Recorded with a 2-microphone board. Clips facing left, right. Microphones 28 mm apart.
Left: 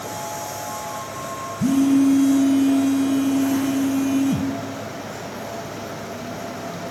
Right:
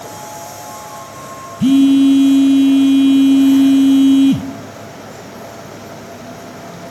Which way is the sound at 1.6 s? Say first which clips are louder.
Right 7 dB; 80° right.